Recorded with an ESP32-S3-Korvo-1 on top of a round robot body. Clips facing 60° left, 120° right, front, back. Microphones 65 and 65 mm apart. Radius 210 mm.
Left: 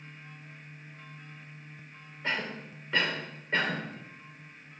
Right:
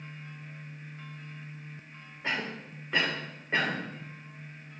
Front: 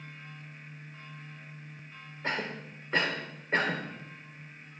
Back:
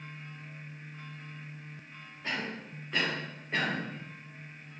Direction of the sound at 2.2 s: 50° right.